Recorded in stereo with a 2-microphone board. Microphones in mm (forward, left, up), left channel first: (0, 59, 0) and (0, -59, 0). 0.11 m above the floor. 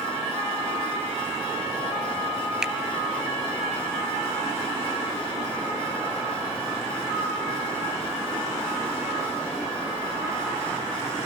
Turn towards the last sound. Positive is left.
turn(degrees=-5)  # may be behind; listen again after turning